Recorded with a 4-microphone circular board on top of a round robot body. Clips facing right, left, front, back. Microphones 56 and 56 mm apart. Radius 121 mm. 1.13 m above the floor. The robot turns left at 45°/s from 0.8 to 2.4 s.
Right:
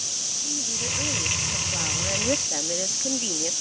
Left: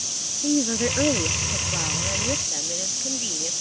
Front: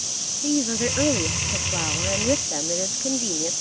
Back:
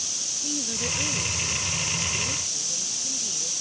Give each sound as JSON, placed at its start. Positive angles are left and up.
{"t": 0.4, "sound": "a woman speaking", "azimuth_deg": 55}